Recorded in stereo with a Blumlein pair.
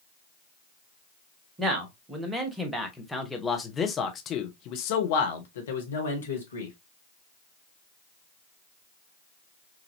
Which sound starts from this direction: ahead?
A man speaking, at 1.6 s.